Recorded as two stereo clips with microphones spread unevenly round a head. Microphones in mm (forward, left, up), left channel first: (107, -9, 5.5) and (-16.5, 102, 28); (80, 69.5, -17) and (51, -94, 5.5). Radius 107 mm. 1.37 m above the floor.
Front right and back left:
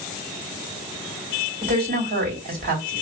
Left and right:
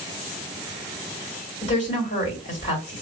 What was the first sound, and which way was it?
A woman speaking, 110° left.